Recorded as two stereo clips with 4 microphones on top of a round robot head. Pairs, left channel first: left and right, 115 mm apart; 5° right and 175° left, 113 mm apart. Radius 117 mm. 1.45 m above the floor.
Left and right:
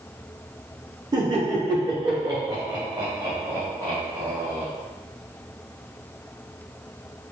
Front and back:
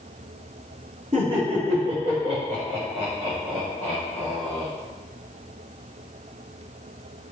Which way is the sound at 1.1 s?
140° right.